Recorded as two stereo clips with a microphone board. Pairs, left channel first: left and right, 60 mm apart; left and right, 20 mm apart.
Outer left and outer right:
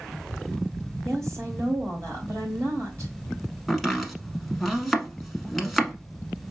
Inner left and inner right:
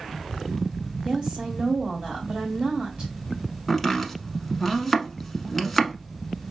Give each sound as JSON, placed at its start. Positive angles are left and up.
{"t": 1.1, "sound": "a woman speaking", "side_deg": -60, "distance_m": 2.0}
{"t": 3.7, "sound": "chopping", "side_deg": 0, "distance_m": 0.9}